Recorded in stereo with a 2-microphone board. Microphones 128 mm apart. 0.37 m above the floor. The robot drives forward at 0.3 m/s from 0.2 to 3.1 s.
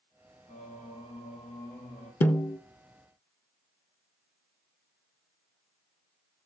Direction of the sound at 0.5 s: 85° left.